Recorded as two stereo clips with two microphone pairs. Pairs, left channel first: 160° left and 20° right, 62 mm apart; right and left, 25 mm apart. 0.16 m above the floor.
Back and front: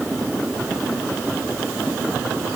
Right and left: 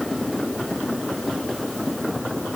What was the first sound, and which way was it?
Only background noise.